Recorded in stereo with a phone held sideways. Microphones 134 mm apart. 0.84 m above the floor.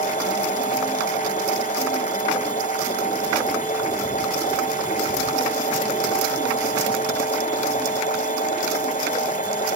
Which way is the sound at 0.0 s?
70° left (ahead or behind).